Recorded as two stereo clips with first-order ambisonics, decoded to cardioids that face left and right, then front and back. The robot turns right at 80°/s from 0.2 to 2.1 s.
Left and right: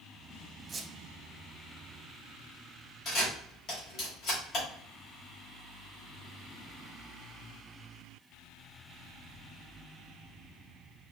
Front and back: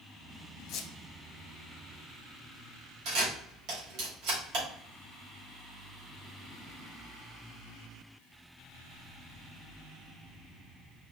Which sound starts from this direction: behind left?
A camera shutter, at 3.0 s.